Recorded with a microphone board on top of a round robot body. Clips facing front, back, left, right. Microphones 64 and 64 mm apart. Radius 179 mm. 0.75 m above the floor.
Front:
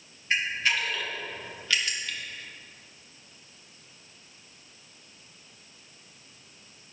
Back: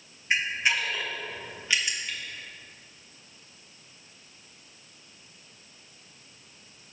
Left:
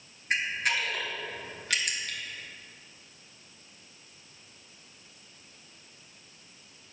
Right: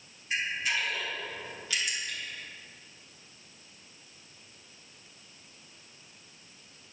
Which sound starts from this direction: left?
A camera shutter, at 0.3 s.